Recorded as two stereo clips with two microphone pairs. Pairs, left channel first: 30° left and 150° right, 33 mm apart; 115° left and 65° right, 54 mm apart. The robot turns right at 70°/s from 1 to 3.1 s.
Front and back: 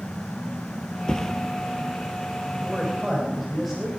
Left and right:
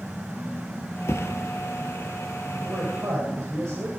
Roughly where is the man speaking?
Right.